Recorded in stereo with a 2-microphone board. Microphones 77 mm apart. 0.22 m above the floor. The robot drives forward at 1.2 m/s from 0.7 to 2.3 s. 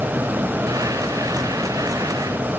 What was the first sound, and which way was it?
Only background noise.